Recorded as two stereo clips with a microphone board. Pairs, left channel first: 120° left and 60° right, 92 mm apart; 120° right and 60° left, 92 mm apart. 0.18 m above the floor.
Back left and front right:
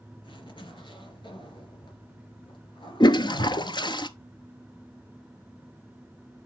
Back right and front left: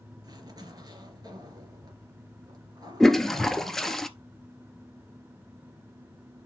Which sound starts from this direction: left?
A zipper, at 0.2 s.